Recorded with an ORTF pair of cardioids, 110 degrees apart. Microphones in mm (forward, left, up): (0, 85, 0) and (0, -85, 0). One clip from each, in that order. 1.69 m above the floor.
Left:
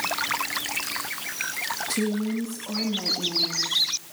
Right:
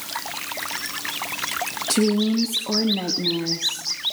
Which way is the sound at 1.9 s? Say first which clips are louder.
Right 6 dB; 45° right.